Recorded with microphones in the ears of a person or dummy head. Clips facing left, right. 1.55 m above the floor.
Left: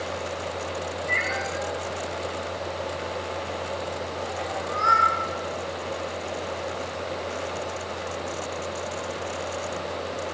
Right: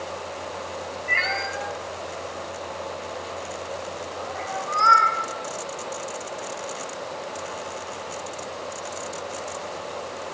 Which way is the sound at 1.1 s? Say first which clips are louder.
Left 1 dB; 75° right (ahead or behind).